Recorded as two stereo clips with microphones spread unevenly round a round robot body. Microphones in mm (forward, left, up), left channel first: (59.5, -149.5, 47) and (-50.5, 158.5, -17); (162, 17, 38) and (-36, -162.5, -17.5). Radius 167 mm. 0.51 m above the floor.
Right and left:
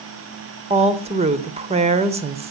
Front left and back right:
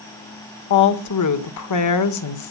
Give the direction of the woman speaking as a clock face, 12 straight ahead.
10 o'clock.